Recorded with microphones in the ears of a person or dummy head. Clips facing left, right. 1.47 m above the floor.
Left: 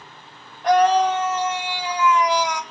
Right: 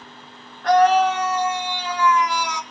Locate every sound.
0.6 s a scream: 20° left (ahead or behind), 2.0 m